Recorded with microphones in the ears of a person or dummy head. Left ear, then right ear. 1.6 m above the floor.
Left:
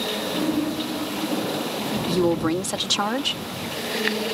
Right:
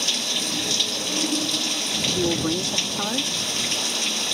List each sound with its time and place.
0.0 s running water: 85° right
2.1 s a woman speaking: 85° left